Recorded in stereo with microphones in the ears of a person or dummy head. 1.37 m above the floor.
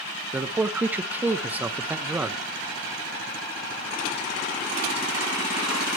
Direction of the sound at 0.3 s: 10° right (ahead or behind).